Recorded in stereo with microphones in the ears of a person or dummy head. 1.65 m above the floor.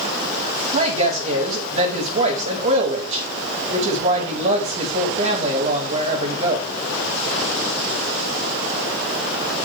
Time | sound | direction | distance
0.7 | a woman speaking | 35° right (ahead or behind) | 4.5 m